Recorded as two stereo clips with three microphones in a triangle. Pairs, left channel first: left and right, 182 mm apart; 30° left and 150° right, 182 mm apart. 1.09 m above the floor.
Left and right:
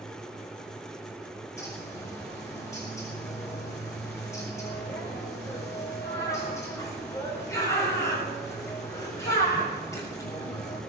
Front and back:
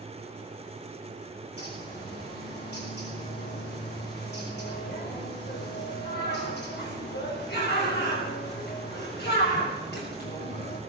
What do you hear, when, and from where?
1.6 s a bird: 15° left, 7 m